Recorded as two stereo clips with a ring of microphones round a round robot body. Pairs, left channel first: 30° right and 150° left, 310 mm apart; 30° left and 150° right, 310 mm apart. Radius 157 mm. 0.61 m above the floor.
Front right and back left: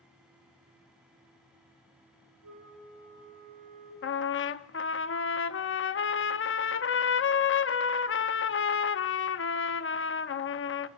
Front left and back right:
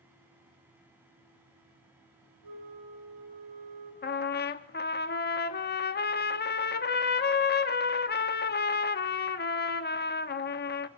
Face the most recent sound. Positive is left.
turn(degrees=-10)